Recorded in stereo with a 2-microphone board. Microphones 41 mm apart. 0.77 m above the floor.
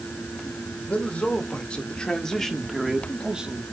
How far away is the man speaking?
About 2.5 m.